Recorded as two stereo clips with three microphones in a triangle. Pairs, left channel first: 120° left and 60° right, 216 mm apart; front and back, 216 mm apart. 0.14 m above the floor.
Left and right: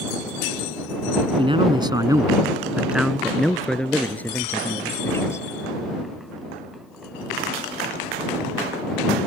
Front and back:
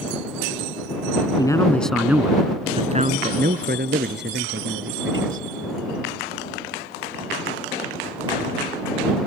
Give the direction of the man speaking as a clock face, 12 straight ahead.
1 o'clock.